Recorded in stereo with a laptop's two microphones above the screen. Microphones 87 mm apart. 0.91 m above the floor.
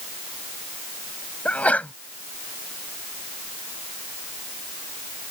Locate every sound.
1.4 s a sneeze: 15° left (ahead or behind)